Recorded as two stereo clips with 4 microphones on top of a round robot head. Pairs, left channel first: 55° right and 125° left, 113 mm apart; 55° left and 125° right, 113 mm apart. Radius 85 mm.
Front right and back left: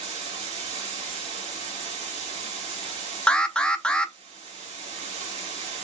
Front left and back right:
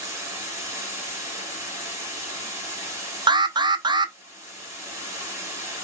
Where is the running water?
165° left, 1.6 m.